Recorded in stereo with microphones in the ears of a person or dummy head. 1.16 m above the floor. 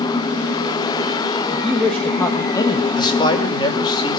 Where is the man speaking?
35° left (ahead or behind), 5 m.